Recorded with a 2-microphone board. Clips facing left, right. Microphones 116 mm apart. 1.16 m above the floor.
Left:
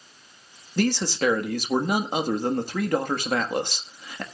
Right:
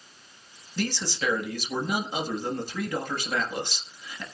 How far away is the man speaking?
About 1.5 m.